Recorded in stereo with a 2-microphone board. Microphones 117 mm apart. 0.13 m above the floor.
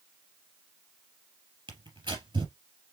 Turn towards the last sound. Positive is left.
turn(degrees=-35)  # may be behind; listen again after turning